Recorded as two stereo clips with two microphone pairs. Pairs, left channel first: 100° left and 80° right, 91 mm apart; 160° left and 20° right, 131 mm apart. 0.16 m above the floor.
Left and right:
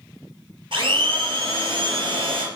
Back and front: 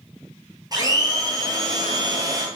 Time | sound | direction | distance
0.7 | a blender | 80° right | 0.8 m